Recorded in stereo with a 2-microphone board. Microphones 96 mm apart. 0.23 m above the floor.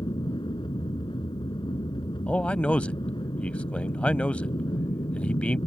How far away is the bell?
I don't hear a bell.